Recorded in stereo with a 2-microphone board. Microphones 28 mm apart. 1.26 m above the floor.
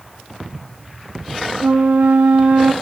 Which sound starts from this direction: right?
A flute, at 1.6 s.